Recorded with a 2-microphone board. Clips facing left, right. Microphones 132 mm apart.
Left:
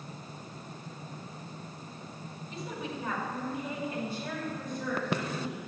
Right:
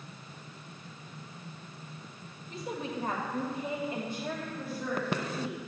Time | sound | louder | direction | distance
2.5 | a woman speaking | right 3 dB | 45° right (ahead or behind) | 1.6 m